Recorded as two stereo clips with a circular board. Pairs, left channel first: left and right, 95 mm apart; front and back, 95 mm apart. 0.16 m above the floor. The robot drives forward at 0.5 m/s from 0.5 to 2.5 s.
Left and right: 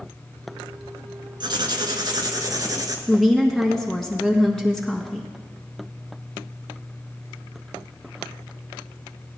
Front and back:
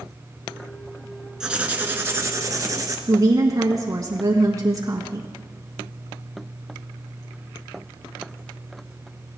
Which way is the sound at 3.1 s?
170° left.